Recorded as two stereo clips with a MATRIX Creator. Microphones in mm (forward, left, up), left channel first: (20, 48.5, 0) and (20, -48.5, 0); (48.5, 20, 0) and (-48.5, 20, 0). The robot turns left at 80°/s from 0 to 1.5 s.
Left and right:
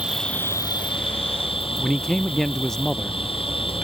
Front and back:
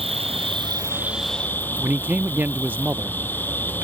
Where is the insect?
170° right; by 3.8 s 70° left.